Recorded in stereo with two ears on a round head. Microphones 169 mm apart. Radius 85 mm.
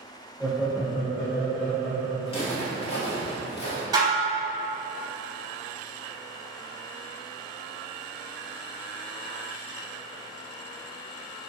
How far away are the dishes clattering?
About 0.7 m.